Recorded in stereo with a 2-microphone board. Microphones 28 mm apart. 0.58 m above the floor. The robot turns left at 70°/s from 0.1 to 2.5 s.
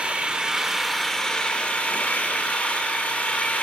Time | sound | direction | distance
0.0 | an engine running | 125° right | 0.8 m